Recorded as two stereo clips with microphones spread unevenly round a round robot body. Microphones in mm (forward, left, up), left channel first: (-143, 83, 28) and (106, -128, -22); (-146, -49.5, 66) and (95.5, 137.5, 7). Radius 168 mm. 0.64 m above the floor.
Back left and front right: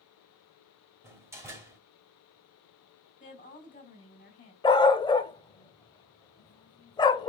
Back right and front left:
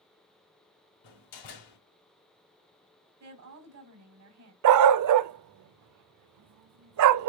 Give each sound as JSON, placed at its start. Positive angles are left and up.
{"t": 1.0, "sound": "a door slam", "azimuth_deg": -120, "distance_m": 3.0}
{"t": 3.2, "sound": "a woman speaking", "azimuth_deg": 70, "distance_m": 3.5}
{"t": 4.6, "sound": "a dog barking", "azimuth_deg": 70, "distance_m": 0.5}